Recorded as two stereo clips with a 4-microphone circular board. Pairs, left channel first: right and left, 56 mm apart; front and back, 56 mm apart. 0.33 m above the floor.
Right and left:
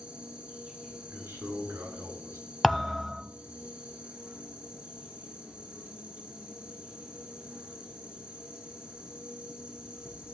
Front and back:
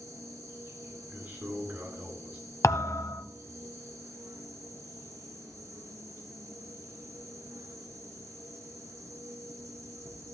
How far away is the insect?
About 4 m.